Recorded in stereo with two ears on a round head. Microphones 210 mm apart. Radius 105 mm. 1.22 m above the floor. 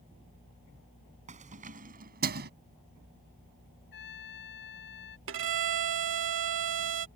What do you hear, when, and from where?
1.3 s keys jangling: 30° right (ahead or behind); by 2.5 s 45° right (ahead or behind)
3.9 s a trumpet: 50° left (ahead or behind)
5.3 s a violin: 55° right (ahead or behind)